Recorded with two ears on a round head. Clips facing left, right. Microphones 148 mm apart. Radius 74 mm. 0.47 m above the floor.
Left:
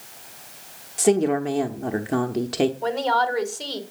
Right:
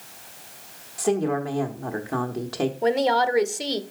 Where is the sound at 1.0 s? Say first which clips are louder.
Left 4 dB; 25° left (ahead or behind), 0.9 m.